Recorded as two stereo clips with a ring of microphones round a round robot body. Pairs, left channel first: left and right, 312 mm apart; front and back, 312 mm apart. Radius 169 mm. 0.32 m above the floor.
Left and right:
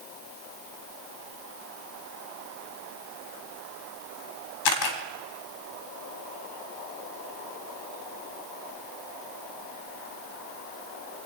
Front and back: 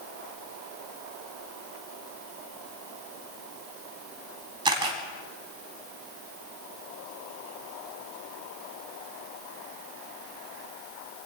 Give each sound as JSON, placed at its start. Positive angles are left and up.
{"t": 4.7, "sound": "a camera shutter", "azimuth_deg": 105, "distance_m": 1.6}